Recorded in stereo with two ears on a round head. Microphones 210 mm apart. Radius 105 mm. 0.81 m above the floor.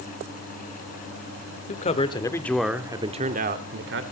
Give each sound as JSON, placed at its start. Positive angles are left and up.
{"t": 1.7, "sound": "a man speaking", "side_deg": 35, "distance_m": 2.0}